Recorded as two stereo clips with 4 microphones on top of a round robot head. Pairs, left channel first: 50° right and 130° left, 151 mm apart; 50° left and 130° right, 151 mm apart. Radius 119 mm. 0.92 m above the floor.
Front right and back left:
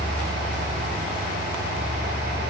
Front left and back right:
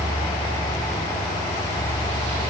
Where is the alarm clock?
I don't hear an alarm clock.